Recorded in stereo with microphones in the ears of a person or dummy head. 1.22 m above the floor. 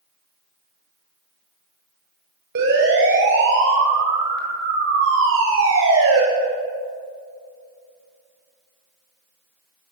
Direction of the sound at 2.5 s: 60° right (ahead or behind).